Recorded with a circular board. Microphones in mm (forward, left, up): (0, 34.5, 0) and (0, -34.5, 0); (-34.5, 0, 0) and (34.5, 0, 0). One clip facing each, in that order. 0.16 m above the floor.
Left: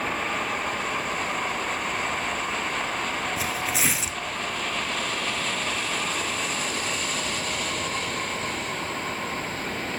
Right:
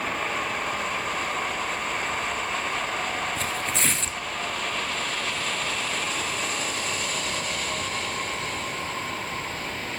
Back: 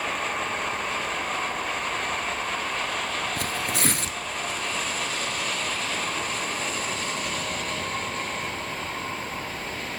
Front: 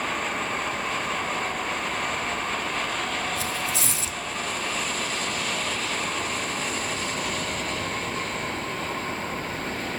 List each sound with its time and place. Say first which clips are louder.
3.4 s tearing paper: left 1 dB, back 1 dB; 175° left, 1.5 m